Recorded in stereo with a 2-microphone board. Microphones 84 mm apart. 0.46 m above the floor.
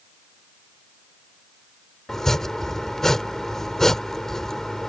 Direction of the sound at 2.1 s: 5° left (ahead or behind).